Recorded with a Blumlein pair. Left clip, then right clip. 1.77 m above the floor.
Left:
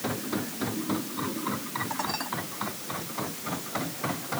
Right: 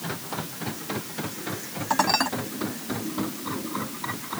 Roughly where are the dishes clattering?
Ahead right.